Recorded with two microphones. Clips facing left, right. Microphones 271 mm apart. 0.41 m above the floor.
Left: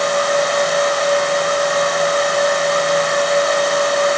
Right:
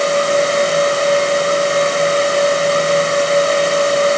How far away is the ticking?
No ticking in this recording.